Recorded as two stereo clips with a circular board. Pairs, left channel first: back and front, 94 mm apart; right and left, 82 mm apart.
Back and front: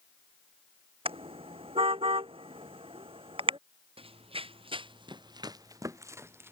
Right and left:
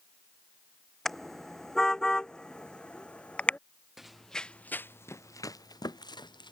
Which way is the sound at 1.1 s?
5° right.